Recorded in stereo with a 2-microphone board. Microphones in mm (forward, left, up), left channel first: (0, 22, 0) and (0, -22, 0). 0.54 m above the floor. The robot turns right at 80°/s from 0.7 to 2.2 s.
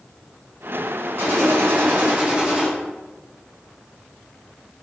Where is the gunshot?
110° right, 2.5 m; by 2.7 s 30° right, 2.5 m.